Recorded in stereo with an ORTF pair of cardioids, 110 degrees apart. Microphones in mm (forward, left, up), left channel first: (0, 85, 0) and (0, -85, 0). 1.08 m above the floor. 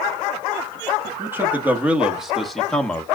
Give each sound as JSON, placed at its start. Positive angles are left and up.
{"t": 1.2, "sound": "a man speaking", "azimuth_deg": -15, "distance_m": 2.5}